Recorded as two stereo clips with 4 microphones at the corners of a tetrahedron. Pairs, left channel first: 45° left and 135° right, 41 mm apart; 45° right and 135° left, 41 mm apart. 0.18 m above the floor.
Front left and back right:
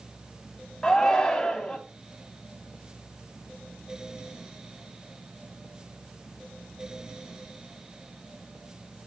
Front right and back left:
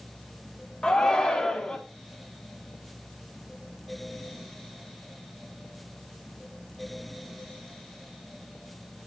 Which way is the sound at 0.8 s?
10° right.